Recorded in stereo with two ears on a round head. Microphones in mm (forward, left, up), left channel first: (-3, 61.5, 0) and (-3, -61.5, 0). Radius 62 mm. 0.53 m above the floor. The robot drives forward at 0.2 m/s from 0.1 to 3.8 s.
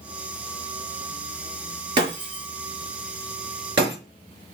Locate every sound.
2.0 s breaking glass: 40° right (ahead or behind), 4.5 m